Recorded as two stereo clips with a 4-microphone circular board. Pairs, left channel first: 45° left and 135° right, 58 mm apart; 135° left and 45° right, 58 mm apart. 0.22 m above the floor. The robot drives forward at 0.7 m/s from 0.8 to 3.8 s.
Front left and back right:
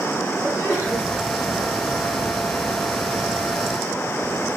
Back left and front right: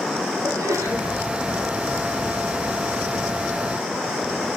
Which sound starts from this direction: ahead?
A sneeze, at 0.4 s.